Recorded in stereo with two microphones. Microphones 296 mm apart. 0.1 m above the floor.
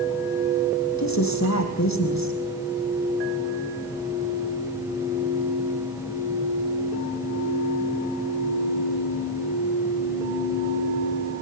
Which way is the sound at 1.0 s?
65° left (ahead or behind).